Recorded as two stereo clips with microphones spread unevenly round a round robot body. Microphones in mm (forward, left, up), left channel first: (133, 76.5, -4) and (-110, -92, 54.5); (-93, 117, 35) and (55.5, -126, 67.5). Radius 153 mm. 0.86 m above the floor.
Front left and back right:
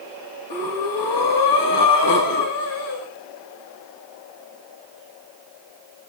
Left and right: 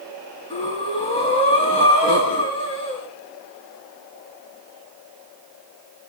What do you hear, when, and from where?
0.5 s breathing: 50° left, 7.5 m